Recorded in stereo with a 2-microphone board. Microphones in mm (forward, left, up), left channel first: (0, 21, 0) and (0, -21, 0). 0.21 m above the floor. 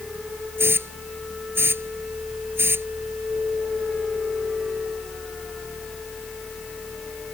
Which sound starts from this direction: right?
A hiss, at 0.6 s.